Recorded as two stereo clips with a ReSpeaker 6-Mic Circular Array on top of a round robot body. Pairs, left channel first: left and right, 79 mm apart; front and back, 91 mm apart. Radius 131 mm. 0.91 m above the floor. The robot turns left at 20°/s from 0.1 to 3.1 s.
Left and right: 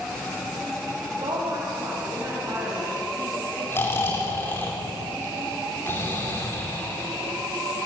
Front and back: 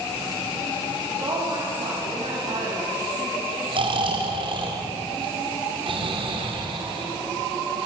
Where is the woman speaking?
130° right, 7.5 m; by 3.6 s 170° right, 7.5 m.